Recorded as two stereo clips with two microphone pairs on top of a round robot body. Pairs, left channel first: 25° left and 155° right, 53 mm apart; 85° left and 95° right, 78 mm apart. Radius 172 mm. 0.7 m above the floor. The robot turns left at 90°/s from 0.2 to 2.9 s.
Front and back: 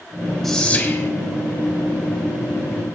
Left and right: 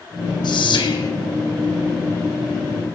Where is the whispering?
105° left, 3.5 m; by 1.1 s 45° left, 3.5 m.